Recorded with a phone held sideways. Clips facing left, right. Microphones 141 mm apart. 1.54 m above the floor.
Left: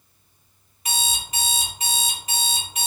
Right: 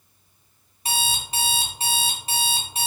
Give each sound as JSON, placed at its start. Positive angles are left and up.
{"t": 0.8, "sound": "an alarm clock", "side_deg": -30, "distance_m": 1.1}